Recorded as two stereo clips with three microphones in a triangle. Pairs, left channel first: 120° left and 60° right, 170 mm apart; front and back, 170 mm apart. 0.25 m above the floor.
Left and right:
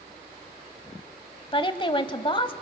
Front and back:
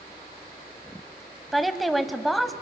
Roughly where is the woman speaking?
Left.